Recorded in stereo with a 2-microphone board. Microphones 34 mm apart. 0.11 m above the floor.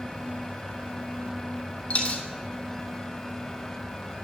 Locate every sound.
1.9 s a dropped coin: 40° left (ahead or behind), 1.0 m